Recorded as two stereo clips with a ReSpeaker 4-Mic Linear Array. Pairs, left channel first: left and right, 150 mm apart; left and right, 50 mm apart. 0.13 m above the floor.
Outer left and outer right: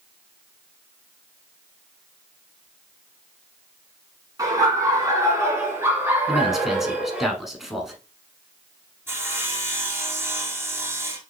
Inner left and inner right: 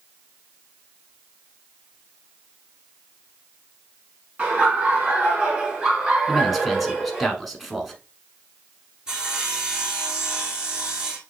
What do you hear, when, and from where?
4.4 s laughter: 25° right (ahead or behind), 1.8 m; by 7.3 s 10° right (ahead or behind), 2.5 m
6.3 s a man speaking: centre (ahead or behind), 1.1 m
9.1 s sawing: 15° right (ahead or behind), 1.2 m